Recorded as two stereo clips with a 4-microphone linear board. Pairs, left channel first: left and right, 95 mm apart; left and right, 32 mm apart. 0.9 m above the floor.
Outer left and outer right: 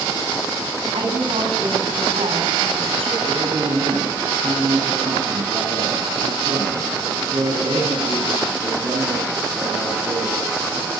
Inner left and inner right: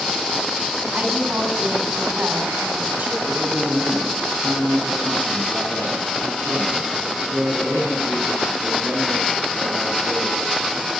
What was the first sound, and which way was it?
A woman speaking, 85° right.